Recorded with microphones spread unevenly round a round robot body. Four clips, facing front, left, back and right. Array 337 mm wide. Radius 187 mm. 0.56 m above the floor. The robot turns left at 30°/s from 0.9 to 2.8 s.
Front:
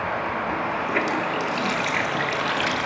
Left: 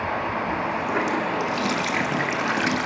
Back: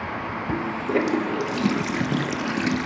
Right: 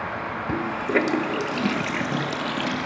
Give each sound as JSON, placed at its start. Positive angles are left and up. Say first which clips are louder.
{"t": 0.5, "sound": "a running tap", "louder": "right 5 dB, back 4 dB", "azimuth_deg": -135, "distance_m": 0.7}